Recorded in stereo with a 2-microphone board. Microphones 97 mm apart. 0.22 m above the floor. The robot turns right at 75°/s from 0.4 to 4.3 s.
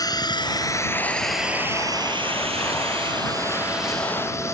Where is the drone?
40° left (ahead or behind); by 4.5 s 30° left (ahead or behind).